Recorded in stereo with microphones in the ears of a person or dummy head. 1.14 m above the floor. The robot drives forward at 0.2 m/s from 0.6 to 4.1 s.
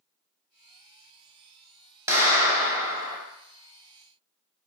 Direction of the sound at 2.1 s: 15° right (ahead or behind).